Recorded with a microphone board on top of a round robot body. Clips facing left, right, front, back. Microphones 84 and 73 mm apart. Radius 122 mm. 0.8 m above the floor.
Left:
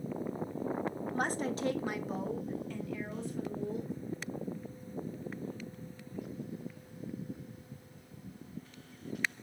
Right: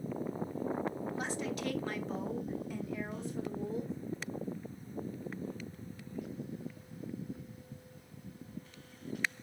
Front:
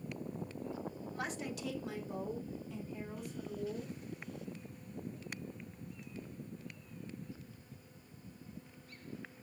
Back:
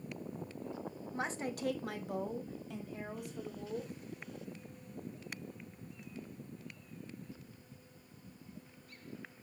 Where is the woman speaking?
115° left, 1.2 m; by 3.9 s 155° right, 3 m.